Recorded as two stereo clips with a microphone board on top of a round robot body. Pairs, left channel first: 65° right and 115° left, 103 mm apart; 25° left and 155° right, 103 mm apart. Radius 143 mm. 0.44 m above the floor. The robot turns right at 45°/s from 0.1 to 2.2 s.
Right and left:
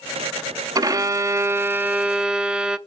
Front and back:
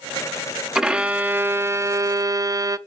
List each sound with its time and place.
0.8 s a violin: 120° left, 0.8 m; by 2.8 s 175° right, 0.8 m